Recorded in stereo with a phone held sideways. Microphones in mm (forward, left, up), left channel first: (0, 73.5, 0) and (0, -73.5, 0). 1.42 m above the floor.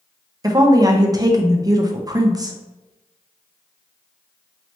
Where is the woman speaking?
25° right (ahead or behind), 0.7 m.